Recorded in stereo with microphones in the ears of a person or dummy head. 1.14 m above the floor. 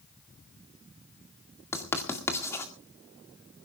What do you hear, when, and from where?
1.7 s writing: 15° left (ahead or behind), 2.0 m